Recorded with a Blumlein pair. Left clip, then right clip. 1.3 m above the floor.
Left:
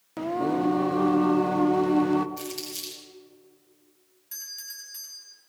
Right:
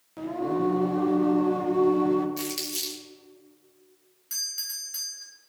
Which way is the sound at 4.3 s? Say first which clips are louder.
Right 7 dB; 45° right.